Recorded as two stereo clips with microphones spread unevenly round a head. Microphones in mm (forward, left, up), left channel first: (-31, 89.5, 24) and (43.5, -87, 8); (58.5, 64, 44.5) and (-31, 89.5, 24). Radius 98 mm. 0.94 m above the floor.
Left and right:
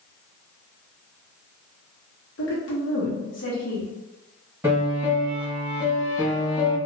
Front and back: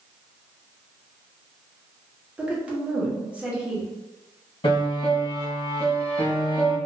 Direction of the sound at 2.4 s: 95° left.